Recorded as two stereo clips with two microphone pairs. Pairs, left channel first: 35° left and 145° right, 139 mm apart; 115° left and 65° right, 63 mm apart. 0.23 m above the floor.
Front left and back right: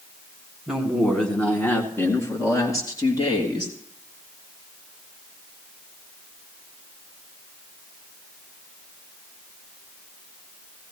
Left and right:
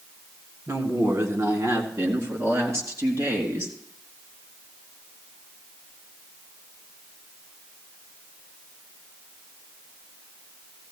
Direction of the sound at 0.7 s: 55° right.